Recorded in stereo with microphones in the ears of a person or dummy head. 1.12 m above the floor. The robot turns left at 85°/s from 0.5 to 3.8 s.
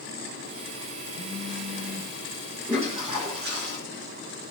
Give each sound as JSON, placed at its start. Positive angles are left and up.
{"t": 1.1, "sound": "a phone buzzing", "azimuth_deg": 165, "distance_m": 1.3}
{"t": 2.7, "sound": "a toilet flushing", "azimuth_deg": -5, "distance_m": 1.4}